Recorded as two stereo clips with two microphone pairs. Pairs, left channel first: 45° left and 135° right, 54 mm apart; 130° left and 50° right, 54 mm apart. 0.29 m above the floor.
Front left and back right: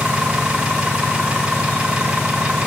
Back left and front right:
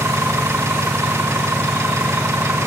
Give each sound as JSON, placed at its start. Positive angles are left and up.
{"t": 0.0, "sound": "an engine running", "azimuth_deg": -65, "distance_m": 1.1}